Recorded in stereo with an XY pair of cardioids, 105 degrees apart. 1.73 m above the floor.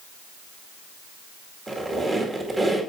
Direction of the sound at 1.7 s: 30° right.